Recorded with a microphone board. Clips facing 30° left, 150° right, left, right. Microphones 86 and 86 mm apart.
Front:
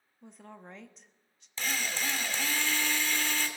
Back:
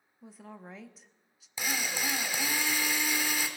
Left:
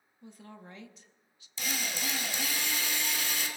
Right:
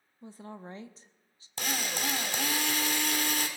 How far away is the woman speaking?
About 0.8 m.